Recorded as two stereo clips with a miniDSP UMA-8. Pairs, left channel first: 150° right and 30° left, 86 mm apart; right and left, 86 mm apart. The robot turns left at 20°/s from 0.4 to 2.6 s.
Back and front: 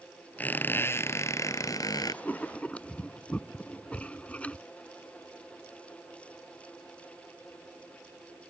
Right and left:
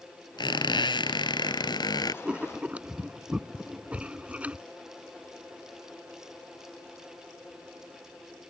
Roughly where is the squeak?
Right.